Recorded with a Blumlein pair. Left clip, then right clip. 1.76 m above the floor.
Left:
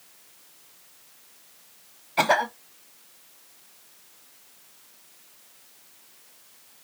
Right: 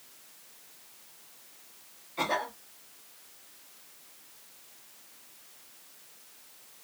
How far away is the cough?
About 1.1 m.